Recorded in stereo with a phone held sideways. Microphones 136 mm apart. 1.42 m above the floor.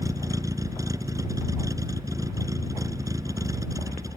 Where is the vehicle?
25° right (ahead or behind).